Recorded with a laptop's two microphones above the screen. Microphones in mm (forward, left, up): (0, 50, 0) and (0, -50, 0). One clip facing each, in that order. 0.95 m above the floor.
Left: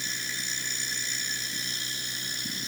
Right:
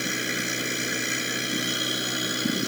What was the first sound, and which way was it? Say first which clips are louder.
A machine running: right 10 dB; 55° right (ahead or behind).